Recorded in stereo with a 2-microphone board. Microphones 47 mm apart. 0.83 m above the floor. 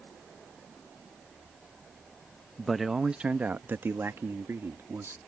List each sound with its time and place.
2.6 s a man speaking: 10° left (ahead or behind); by 5.2 s 65° right (ahead or behind)